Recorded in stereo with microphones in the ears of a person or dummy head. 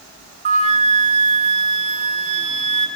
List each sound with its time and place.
0.5 s a flute: 50° right (ahead or behind), 1.3 m